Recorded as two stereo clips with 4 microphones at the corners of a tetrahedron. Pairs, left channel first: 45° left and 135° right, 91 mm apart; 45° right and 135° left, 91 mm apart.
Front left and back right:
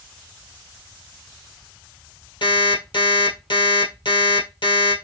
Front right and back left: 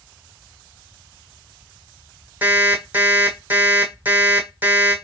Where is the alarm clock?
65° left, 2.0 m.